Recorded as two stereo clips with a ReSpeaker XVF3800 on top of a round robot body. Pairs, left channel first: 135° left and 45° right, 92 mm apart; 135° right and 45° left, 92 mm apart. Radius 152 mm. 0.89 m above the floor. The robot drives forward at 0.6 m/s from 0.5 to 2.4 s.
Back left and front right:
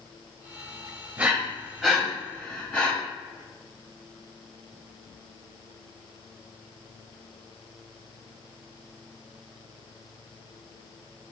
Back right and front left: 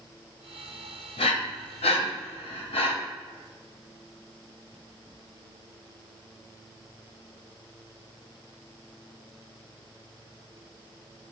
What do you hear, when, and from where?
1.2 s breathing: 120° right, 0.9 m; by 2.9 s 150° right, 1.4 m